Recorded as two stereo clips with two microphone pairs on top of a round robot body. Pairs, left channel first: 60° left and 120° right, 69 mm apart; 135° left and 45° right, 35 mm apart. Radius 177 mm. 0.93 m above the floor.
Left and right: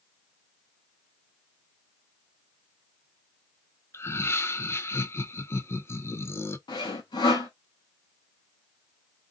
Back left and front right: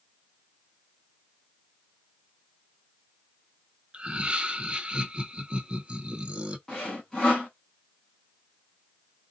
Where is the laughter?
10° left, 0.7 m.